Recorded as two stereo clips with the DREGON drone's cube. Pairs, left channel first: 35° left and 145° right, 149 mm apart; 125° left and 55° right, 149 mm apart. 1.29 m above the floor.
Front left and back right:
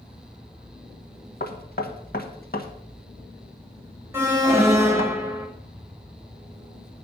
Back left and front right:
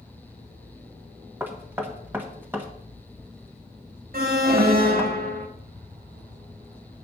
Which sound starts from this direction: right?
An alarm, at 4.1 s.